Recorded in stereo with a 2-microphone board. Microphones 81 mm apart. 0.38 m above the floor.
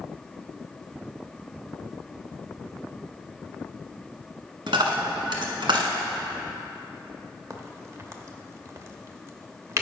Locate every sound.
4.7 s a dropped coin: 75° right (ahead or behind), 1.0 m
7.5 s a crack: 35° right (ahead or behind), 0.7 m